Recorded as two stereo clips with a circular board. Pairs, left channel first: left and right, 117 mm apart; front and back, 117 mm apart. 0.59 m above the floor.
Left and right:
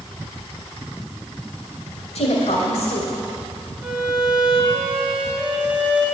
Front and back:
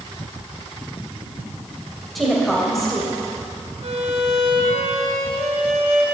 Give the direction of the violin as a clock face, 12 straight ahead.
6 o'clock.